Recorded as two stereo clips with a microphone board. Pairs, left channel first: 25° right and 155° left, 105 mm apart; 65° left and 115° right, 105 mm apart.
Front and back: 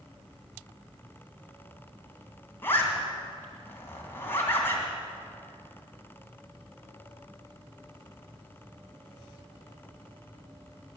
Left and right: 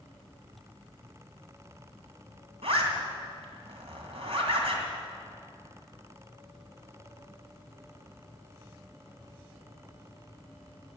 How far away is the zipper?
About 2.5 m.